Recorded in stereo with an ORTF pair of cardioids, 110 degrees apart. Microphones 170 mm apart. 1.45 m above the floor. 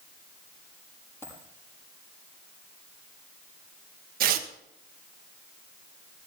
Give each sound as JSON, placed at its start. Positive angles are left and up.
{"t": 1.2, "sound": "a dropped coin", "azimuth_deg": 15, "distance_m": 7.0}
{"t": 4.2, "sound": "tearing paper", "azimuth_deg": -60, "distance_m": 1.4}